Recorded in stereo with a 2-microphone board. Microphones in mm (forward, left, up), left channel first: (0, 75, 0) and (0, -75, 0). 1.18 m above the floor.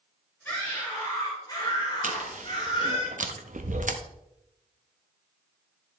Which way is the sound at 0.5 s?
15° left (ahead or behind).